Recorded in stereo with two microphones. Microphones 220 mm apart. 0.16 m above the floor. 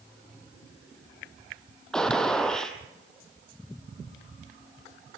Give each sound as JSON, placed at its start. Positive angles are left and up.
{"t": 1.9, "sound": "a gunshot", "side_deg": 5, "distance_m": 2.5}